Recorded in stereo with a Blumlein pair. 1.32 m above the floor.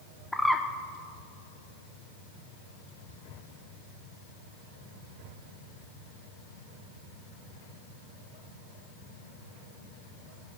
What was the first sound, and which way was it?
A bird, straight ahead.